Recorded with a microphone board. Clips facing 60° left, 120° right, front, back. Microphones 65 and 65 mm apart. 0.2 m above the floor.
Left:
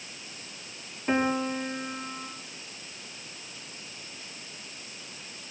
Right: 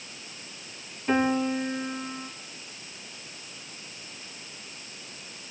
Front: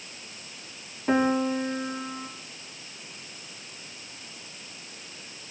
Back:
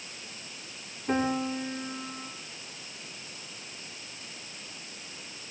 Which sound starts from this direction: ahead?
A piano, at 1.1 s.